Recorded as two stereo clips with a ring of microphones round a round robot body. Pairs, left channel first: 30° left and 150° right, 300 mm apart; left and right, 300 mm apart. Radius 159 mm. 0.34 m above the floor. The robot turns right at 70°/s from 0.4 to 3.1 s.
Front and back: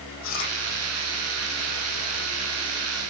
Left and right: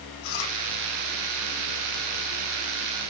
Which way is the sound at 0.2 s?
80° left.